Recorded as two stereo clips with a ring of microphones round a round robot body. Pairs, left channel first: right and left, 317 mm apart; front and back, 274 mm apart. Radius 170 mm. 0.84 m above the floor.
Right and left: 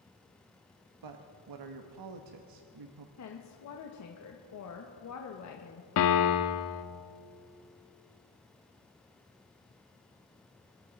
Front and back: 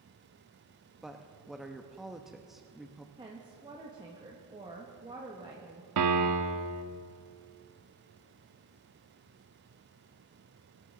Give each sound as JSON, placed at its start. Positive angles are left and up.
{"t": 1.0, "sound": "a woman speaking", "azimuth_deg": 90, "distance_m": 0.9}
{"t": 3.2, "sound": "a woman speaking", "azimuth_deg": -110, "distance_m": 1.2}
{"t": 6.0, "sound": "a piano", "azimuth_deg": -140, "distance_m": 0.8}